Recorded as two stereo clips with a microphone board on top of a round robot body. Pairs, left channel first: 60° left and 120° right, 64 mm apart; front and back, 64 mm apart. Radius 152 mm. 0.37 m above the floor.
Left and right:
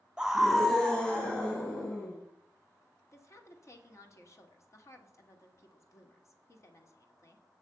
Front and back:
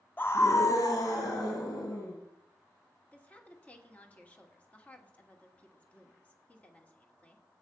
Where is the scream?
50° right, 1.1 m; by 2.2 s 5° right, 3.5 m.